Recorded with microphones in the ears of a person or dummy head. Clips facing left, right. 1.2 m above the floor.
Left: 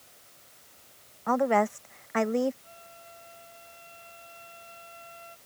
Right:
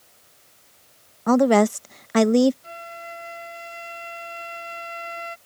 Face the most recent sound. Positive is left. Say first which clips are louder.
# right 13 dB
turn(degrees=-90)